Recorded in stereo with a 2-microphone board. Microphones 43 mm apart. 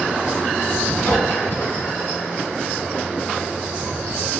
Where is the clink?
65° left (ahead or behind), 1.7 m.